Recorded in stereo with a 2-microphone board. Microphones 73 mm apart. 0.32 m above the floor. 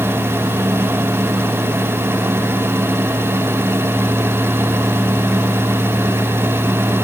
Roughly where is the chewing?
No chewing in this recording.